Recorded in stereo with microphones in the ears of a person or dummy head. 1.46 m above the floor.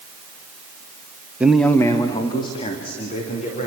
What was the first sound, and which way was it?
A man speaking, 10° right (ahead or behind).